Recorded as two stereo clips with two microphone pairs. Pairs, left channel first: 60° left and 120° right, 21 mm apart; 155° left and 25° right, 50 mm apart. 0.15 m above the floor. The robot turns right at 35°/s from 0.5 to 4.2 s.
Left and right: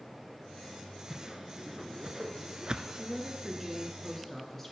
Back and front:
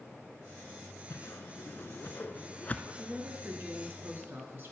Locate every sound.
1.1 s a whoosh: 155° left, 0.6 m; by 2.9 s 145° right, 0.6 m
3.0 s a woman speaking: 55° right, 2 m; by 4.7 s 10° right, 2 m